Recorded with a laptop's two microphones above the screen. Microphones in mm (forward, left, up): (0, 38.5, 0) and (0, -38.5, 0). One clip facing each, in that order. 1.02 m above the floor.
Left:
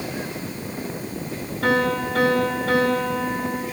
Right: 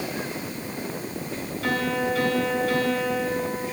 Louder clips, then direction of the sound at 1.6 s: Left 5 dB; 65° left (ahead or behind).